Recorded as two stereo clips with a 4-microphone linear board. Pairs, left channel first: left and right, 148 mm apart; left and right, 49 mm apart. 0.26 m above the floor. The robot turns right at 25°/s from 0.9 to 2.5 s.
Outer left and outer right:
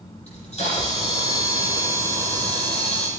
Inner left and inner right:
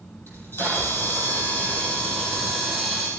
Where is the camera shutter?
135° left, 7 m; by 3.1 s 175° left, 7 m.